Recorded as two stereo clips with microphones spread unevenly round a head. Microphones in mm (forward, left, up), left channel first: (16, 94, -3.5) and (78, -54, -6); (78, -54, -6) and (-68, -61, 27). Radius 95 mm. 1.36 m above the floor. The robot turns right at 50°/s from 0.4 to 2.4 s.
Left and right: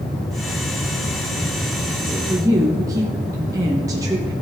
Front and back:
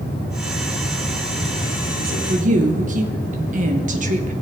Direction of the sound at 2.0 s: 160° right.